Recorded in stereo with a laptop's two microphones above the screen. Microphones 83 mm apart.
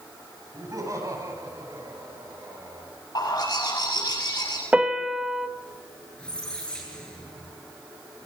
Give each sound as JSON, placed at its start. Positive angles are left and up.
{"t": 0.5, "sound": "laughter", "side_deg": -40, "distance_m": 7.5}
{"t": 3.1, "sound": "a bird", "side_deg": 55, "distance_m": 7.0}
{"t": 4.7, "sound": "a piano", "side_deg": -15, "distance_m": 0.9}
{"t": 6.2, "sound": "a squeak", "side_deg": 10, "distance_m": 9.0}